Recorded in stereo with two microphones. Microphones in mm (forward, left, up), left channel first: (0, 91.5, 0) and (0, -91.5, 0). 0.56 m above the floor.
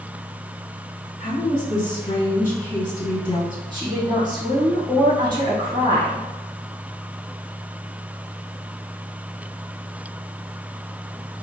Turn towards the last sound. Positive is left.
turn(degrees=-25)  # may be behind; listen again after turning